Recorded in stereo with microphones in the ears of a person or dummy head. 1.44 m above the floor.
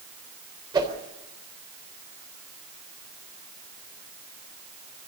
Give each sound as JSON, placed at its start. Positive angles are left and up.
{"t": 0.7, "sound": "a whoosh", "side_deg": -20, "distance_m": 4.0}